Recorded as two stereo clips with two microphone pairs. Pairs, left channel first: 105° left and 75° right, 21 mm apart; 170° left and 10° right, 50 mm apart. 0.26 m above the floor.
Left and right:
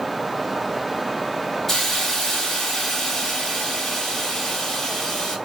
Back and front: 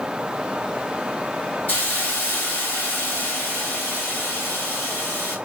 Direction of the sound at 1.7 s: Straight behind.